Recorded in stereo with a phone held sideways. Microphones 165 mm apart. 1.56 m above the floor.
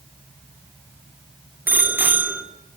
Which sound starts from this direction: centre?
A bicycle bell, at 1.7 s.